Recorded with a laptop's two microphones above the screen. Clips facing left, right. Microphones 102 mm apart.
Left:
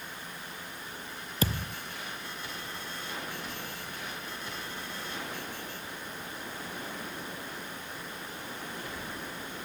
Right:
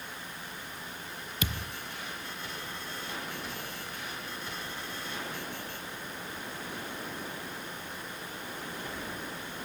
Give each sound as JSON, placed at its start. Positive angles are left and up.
{"t": 1.4, "sound": "a thud", "side_deg": 35}